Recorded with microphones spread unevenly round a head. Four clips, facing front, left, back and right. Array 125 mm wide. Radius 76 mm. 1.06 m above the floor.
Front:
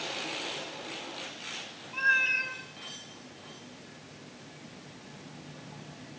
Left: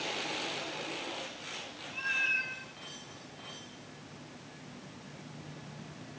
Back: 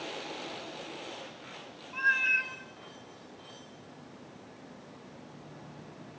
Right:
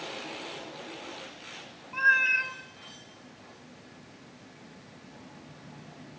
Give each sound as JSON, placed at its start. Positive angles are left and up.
{"t": 1.9, "sound": "a cat meowing", "azimuth_deg": -75, "distance_m": 5.0}